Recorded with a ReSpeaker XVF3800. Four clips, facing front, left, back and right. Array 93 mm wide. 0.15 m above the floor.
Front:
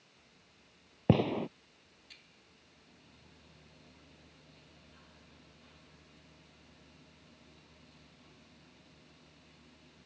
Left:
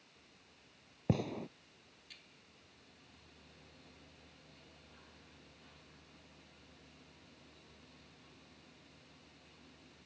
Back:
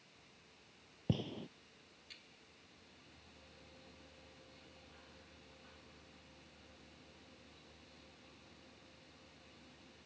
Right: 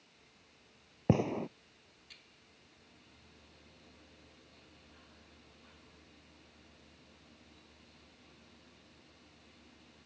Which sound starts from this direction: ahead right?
A gunshot, at 1.1 s.